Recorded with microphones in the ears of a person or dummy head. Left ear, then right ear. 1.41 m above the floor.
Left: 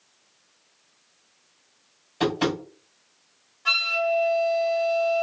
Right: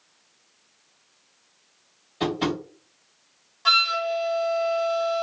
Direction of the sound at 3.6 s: 50° right (ahead or behind).